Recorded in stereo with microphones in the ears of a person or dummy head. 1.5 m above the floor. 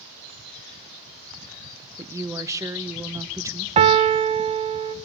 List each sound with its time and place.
2.0 s a woman speaking: 15° right (ahead or behind), 0.6 m
3.8 s a piano: 35° right (ahead or behind), 1.0 m